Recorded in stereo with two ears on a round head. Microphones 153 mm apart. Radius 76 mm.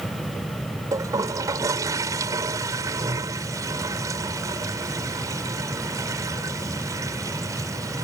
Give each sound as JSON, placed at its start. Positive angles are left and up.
{"t": 0.9, "sound": "a toilet flushing", "side_deg": -20}